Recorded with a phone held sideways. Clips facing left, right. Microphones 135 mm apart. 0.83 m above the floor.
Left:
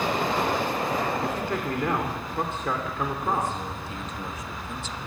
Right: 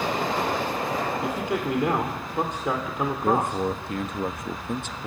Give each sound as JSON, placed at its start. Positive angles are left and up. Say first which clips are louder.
{"t": 1.2, "sound": "a man speaking", "louder": "right 1 dB", "side_deg": -15, "distance_m": 2.5}
{"t": 3.2, "sound": "a man speaking", "louder": "right 7 dB", "side_deg": -60, "distance_m": 0.9}